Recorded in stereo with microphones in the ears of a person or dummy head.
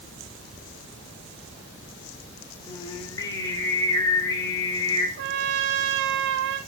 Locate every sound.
2.7 s singing: 20° left (ahead or behind), 1.6 m
5.2 s a trumpet: 65° right (ahead or behind), 0.8 m